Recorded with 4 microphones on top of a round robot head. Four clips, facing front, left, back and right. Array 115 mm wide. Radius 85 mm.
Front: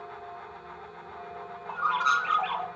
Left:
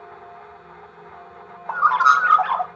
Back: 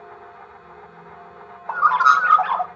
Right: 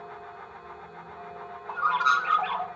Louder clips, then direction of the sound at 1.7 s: Left 8 dB, back 11 dB; 140° left.